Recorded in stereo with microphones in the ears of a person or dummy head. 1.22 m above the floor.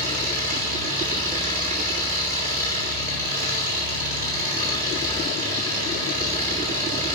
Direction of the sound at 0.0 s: 45° right (ahead or behind).